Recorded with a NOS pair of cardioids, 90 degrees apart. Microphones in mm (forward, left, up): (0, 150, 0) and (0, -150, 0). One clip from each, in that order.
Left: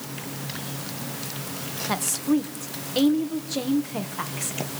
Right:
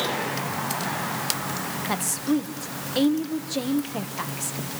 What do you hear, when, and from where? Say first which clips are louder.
1.9 s a woman speaking: left 2 dB; 5° left, 2.0 m